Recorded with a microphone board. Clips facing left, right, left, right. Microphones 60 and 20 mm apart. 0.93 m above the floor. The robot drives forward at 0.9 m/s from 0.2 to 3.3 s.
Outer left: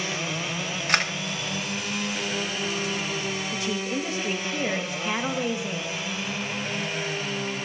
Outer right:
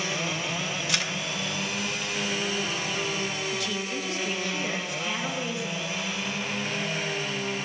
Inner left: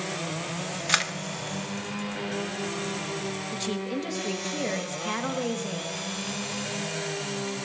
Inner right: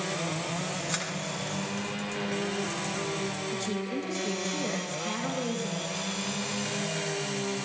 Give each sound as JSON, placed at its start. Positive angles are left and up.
{"t": 0.9, "sound": "a camera shutter", "side_deg": 45, "distance_m": 0.8}
{"t": 3.5, "sound": "a woman speaking", "side_deg": 30, "distance_m": 1.7}